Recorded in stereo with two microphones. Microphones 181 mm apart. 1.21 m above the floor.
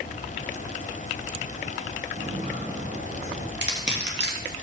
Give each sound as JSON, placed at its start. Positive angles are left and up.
{"t": 2.2, "sound": "footsteps", "side_deg": -45, "distance_m": 4.5}
{"t": 3.6, "sound": "crushing", "side_deg": -65, "distance_m": 2.0}